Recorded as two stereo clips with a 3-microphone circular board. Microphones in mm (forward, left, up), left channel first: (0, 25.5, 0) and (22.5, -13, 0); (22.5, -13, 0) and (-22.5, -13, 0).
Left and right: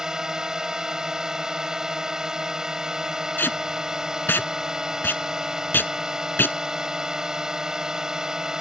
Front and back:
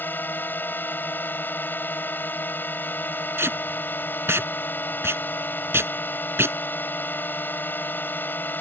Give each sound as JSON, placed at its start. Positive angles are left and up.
{"t": 0.0, "sound": "a drone", "azimuth_deg": 15}
{"t": 3.4, "sound": "tape being pulled", "azimuth_deg": 160}